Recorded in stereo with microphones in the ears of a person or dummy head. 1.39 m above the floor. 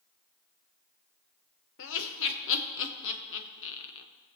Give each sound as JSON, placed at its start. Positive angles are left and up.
{"t": 1.8, "sound": "laughter", "side_deg": 75, "distance_m": 1.4}